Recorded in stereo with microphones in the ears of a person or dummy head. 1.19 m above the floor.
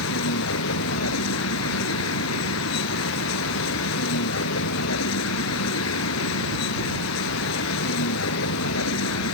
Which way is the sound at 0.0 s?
85° left.